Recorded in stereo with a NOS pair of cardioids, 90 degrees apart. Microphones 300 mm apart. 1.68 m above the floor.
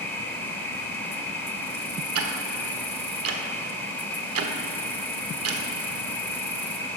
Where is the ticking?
50° right, 1.2 m.